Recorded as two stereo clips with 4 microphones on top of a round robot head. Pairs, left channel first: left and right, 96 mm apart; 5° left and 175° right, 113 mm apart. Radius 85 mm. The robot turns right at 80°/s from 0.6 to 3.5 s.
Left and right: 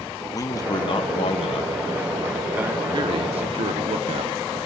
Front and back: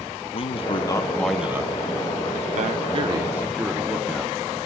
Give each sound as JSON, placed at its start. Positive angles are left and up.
{"t": 0.3, "sound": "a man speaking", "azimuth_deg": 40, "distance_m": 0.9}